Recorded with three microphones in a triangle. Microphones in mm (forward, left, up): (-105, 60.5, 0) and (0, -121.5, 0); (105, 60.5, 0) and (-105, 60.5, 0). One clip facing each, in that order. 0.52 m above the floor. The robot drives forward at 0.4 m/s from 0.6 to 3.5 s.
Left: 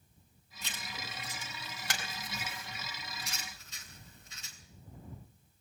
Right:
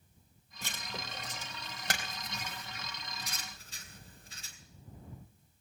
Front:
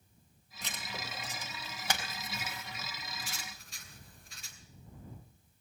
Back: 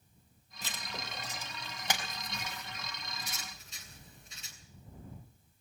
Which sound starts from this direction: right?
Writing, at 0.6 s.